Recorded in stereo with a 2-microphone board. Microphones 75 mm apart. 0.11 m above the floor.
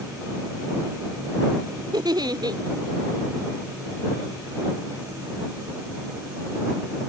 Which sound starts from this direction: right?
A giggle, at 1.9 s.